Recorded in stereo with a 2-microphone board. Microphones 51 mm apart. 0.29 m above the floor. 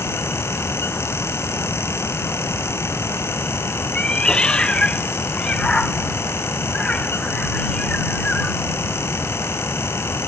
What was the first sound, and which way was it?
A cat meowing, 20° left (ahead or behind).